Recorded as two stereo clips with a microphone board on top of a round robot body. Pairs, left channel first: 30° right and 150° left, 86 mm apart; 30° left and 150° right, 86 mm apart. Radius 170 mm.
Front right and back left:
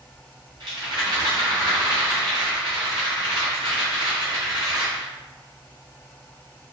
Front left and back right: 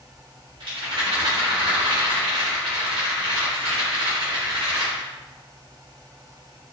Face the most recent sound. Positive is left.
turn(degrees=-170)